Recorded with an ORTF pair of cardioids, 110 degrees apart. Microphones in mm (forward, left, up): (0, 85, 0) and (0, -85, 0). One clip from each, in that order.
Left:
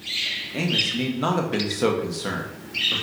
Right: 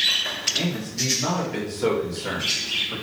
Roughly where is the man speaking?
Ahead left.